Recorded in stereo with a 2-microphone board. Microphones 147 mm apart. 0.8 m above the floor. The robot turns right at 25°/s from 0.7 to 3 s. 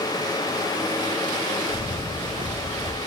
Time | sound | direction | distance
1.7 | a camera shutter | 140° left | 0.6 m